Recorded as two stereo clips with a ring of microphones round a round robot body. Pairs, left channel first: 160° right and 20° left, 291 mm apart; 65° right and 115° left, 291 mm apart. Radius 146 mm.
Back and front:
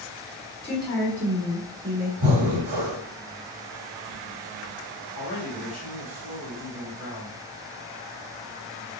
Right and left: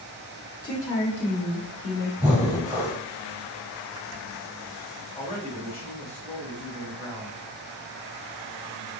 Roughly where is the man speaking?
Behind right.